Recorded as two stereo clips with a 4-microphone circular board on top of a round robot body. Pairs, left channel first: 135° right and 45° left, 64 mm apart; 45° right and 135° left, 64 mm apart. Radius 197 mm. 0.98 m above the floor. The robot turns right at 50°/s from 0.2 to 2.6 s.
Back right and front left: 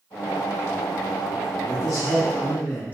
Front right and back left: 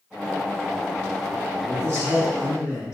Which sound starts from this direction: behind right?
A man speaking, at 1.6 s.